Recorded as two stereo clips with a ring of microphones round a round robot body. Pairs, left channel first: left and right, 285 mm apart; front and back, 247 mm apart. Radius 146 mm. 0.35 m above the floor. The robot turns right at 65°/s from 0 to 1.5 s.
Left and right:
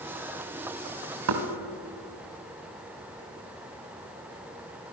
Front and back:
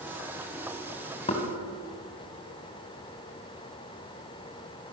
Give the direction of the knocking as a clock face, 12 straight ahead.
2 o'clock.